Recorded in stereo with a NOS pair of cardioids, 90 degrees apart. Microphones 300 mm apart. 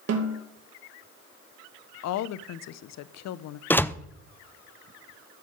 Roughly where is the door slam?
Ahead.